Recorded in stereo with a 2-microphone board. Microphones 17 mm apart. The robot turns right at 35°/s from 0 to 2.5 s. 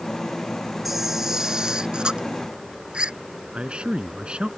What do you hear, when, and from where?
0.8 s a camera shutter: 170° right; by 3.1 s 110° right
3.5 s a man speaking: 75° right (ahead or behind)